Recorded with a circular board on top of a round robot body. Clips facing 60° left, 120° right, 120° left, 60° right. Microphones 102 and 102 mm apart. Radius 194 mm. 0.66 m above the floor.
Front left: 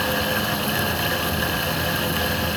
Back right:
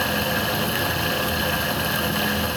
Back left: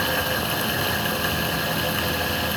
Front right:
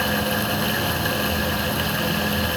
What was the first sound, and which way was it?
Only background noise.